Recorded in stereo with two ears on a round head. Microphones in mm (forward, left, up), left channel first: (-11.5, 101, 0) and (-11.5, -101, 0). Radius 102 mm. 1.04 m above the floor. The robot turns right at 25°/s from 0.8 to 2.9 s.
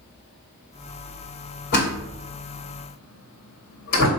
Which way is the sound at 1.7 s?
45° left (ahead or behind).